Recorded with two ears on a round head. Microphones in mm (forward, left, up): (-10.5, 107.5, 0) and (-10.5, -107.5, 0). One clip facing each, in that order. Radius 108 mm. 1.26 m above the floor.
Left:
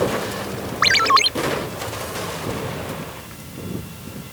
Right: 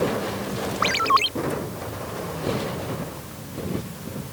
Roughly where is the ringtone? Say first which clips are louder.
Left 2 dB; left.